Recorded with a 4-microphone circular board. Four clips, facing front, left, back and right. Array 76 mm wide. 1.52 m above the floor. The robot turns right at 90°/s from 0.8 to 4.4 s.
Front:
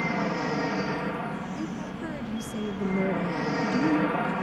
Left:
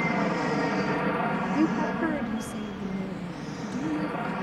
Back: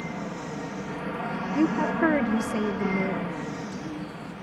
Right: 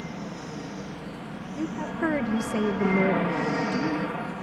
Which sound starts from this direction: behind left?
A woman speaking, at 1.6 s.